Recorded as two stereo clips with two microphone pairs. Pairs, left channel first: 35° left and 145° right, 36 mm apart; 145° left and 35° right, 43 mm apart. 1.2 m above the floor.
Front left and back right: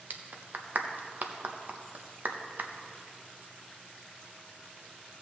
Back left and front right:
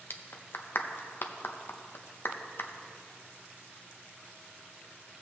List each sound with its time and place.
0.1 s a clap: 175° left, 0.7 m